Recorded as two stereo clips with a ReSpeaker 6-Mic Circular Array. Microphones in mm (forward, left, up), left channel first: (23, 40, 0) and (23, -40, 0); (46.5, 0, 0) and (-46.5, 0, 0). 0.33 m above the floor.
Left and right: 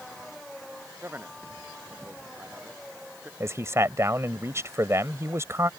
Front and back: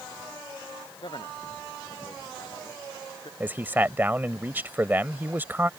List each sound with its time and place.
1.0 s a man speaking: 25° right
3.4 s a man speaking: 120° right